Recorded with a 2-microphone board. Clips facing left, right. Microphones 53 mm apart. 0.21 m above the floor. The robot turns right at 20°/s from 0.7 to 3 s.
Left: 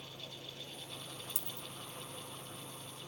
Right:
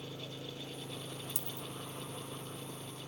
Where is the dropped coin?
10° left (ahead or behind); by 1.7 s 15° left (ahead or behind).